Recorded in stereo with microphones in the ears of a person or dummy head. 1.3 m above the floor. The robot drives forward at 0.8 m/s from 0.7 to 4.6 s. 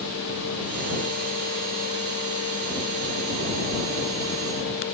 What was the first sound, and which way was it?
Only background noise.